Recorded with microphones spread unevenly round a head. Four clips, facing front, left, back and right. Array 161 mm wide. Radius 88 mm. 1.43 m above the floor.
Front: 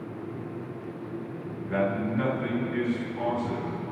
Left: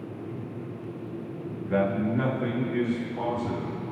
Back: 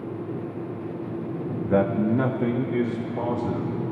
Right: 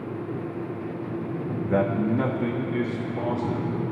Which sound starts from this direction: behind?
A man speaking, at 1.7 s.